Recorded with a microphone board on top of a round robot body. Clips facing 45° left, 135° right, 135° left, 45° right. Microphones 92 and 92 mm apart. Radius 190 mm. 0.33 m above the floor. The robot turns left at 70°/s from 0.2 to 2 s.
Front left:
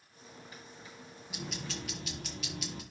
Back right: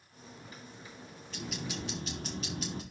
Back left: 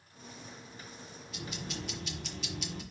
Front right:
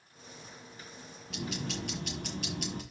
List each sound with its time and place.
1.3 s ticking: 30° right, 2.5 m; by 2.8 s 80° right, 2.5 m